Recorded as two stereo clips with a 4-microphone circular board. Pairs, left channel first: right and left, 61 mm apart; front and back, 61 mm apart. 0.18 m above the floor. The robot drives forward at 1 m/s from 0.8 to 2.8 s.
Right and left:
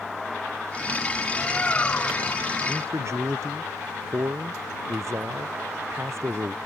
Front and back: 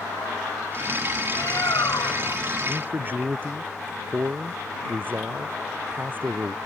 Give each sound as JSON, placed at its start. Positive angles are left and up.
{"t": 1.3, "sound": "a bird", "azimuth_deg": -25}
{"t": 2.7, "sound": "a man speaking", "azimuth_deg": 125}